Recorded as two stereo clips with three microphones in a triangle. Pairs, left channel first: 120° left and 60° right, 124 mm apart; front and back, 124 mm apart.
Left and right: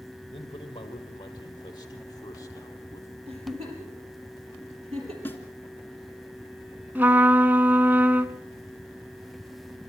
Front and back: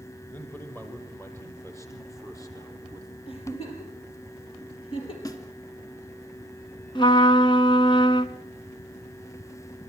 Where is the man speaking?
80° left, 4.5 m; by 3.2 s 55° left, 4.5 m.